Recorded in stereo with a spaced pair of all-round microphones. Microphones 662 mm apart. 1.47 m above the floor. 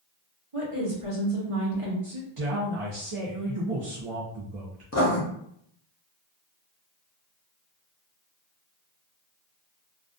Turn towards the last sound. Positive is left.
turn(degrees=25)  # may be behind; listen again after turning